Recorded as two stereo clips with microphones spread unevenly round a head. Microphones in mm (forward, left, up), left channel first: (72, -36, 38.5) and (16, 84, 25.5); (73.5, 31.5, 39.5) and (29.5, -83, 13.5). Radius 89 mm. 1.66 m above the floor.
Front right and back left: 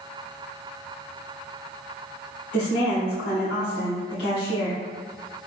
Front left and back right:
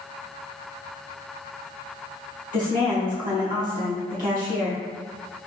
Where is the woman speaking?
95° right, 1.4 m.